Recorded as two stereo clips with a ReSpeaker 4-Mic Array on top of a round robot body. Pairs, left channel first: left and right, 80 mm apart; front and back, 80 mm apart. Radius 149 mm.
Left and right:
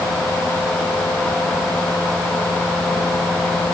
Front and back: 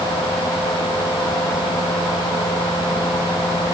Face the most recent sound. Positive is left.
No sound to turn to.